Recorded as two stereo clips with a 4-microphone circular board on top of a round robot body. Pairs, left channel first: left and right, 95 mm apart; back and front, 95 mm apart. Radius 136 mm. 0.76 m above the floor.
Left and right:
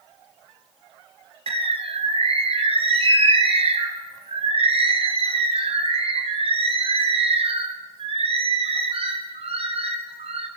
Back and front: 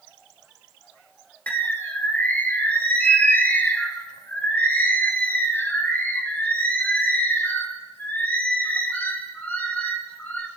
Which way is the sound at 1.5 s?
105° right.